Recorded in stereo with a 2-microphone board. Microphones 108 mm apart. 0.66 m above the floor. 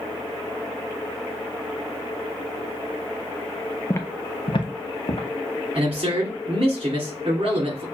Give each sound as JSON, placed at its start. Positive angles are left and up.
{"t": 3.9, "sound": "footsteps", "side_deg": 20, "distance_m": 0.6}
{"t": 5.8, "sound": "a man speaking", "side_deg": -60, "distance_m": 2.0}